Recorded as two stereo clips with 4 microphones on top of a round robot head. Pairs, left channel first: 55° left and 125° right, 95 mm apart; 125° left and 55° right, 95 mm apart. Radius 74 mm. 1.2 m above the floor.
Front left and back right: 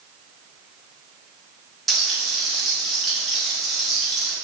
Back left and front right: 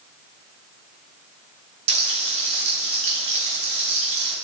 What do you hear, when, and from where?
1.9 s frying: 35° right, 0.6 m